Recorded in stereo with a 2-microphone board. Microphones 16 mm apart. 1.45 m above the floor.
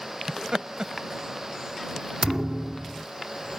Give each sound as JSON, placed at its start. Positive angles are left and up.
{"t": 0.3, "sound": "laughter", "side_deg": -55}
{"t": 2.2, "sound": "a thud", "side_deg": -35}